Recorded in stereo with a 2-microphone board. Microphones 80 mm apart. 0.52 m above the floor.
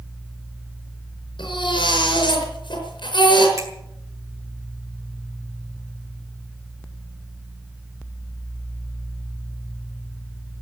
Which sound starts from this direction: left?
A baby crying, at 1.4 s.